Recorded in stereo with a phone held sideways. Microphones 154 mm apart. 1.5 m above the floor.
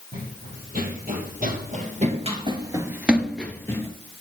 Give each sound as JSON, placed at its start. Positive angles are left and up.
{"t": 0.1, "sound": "running footsteps", "side_deg": -65, "distance_m": 4.0}